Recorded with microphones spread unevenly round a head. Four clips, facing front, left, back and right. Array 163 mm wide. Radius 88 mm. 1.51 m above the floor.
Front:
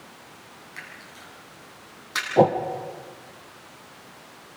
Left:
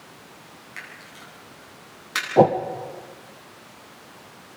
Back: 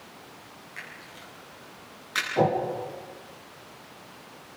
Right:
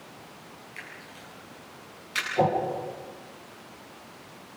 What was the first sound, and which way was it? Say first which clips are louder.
A camera shutter: left 4 dB, front 1 dB; 55° left.